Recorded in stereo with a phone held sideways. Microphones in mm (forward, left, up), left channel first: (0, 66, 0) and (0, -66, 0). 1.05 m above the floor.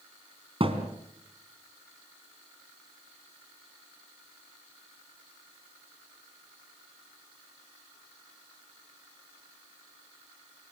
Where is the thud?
45° right (ahead or behind), 3 m.